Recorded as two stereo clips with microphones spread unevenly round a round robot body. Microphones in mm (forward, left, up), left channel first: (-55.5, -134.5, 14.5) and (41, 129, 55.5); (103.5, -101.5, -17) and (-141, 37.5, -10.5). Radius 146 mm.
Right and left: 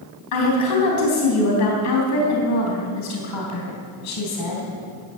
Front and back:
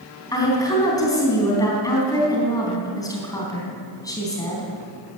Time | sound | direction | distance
0.3 | a woman speaking | 105° right | 3.5 m